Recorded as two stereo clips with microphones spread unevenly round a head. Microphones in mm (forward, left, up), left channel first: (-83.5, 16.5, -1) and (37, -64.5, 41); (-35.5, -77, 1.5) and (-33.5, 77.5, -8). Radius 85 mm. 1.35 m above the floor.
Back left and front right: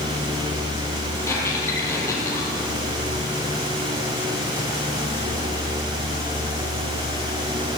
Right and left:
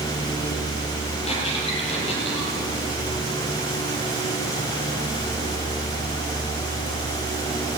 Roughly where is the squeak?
Behind right.